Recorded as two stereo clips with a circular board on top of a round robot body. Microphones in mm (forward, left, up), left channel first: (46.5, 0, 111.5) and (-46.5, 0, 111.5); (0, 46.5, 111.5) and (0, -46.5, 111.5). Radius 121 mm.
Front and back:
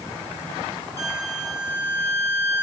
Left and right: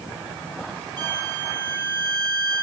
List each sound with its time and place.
1.0 s a violin: 60° right, 2 m